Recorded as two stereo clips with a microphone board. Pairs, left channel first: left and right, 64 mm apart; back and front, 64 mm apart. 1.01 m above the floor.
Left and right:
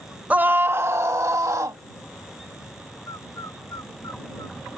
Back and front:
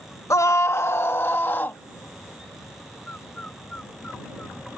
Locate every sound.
0.3 s a scream: 155° right; by 1.8 s 125° right
3.1 s a bird: 115° left